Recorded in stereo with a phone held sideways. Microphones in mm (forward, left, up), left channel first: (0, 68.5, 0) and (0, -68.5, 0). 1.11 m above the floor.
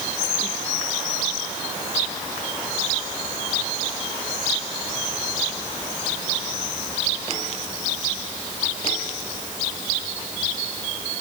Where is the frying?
I don't hear frying.